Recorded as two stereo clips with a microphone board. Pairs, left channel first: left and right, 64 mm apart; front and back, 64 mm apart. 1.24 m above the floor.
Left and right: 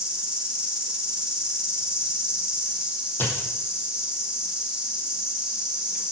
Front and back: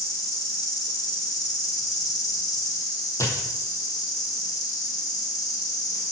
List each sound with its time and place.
0.0 s an insect: 15° right, 1.9 m
3.2 s a dropped coin: 35° left, 2.5 m